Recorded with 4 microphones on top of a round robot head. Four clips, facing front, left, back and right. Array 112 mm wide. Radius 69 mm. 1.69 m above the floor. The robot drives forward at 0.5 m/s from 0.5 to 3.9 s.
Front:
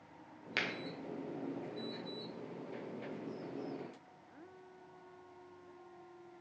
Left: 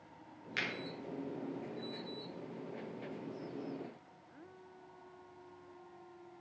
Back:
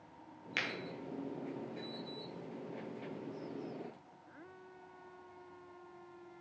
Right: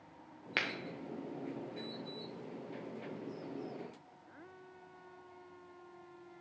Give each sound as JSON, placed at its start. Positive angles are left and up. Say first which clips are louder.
{"t": 0.6, "sound": "a finger snap", "louder": "right 3 dB, front 1 dB", "azimuth_deg": -65, "distance_m": 1.6}